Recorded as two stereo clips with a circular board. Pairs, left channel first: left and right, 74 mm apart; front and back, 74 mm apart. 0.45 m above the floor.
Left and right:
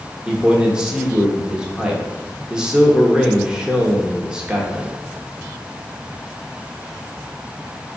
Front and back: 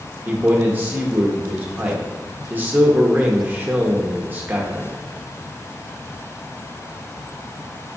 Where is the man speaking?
155° right, 0.8 m.